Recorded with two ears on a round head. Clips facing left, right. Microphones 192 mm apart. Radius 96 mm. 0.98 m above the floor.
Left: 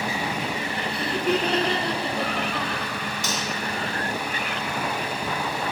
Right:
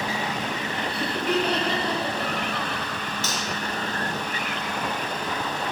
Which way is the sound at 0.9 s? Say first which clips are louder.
Left 2 dB; 35° left (ahead or behind).